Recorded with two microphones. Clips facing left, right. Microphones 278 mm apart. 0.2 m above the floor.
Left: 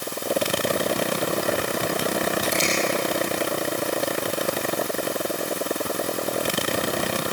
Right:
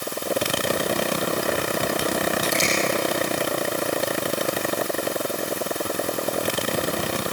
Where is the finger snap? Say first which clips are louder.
Even; 50° right (ahead or behind), 7.5 m.